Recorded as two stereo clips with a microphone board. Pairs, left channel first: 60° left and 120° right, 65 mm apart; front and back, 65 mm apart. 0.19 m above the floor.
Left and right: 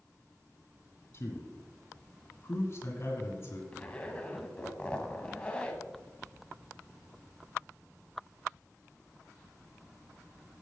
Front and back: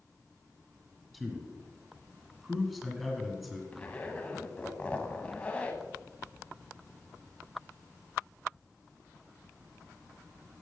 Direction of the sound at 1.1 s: 90° left.